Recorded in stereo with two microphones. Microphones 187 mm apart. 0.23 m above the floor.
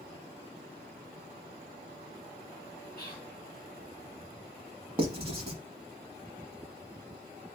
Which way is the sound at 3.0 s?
15° left (ahead or behind).